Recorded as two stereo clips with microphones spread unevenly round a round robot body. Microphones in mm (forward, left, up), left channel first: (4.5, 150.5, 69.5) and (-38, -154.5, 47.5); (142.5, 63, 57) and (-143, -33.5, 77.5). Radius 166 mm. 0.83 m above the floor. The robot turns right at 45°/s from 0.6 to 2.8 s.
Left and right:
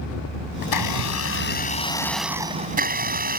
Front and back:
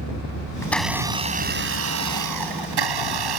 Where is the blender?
100° left; by 3.4 s 160° right.